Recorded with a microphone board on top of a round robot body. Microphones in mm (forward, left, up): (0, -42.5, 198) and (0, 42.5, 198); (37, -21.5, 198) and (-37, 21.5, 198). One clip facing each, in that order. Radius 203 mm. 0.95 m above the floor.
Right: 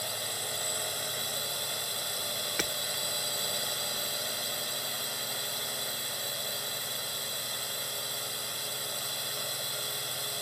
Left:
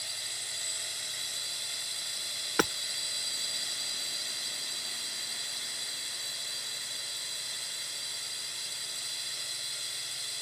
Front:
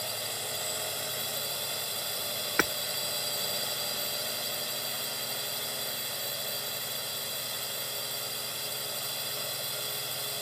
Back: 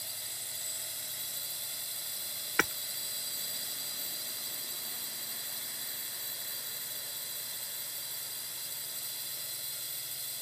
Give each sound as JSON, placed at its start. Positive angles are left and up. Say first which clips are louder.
{"t": 0.0, "sound": "a drone", "louder": "right 9 dB, front 13 dB", "azimuth_deg": -50}
{"t": 2.6, "sound": "hammering", "louder": "left 9 dB, front 2 dB", "azimuth_deg": 50}